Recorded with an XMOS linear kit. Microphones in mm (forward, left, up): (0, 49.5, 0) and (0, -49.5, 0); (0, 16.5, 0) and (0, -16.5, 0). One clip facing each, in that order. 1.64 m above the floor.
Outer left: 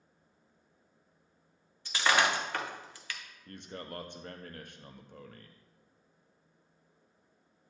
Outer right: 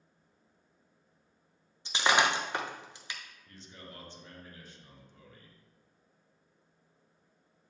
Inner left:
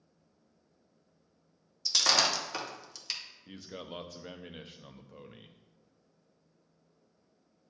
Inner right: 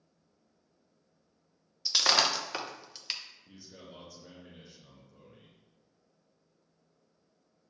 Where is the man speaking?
55° left (ahead or behind), 0.6 m.